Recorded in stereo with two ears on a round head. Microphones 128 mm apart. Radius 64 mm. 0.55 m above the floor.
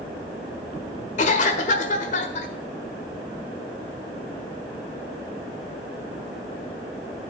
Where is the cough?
55° left (ahead or behind), 1.5 m.